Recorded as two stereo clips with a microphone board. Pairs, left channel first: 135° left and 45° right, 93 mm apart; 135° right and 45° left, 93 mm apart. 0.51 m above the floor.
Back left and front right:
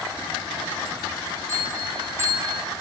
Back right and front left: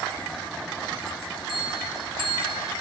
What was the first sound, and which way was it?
A bell, 20° left.